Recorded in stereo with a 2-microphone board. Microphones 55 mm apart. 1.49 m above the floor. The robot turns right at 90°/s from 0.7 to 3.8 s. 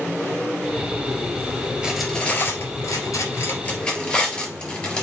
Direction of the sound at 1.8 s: 15° right (ahead or behind).